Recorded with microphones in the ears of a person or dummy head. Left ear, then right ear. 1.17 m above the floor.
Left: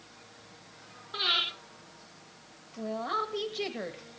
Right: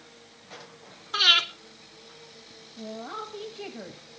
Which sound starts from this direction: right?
Breathing, at 1.1 s.